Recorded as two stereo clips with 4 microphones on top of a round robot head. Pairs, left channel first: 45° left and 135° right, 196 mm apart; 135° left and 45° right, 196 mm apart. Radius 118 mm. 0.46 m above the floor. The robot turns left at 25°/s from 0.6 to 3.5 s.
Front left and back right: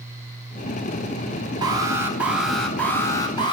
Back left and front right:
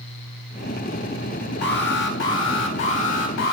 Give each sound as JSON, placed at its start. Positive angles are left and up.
{"t": 1.6, "sound": "an alarm", "azimuth_deg": 160, "distance_m": 4.0}